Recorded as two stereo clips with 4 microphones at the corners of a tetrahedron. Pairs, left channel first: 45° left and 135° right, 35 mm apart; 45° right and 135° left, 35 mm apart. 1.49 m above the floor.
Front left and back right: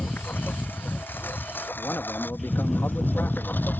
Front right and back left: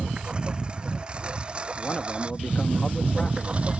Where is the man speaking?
20° left.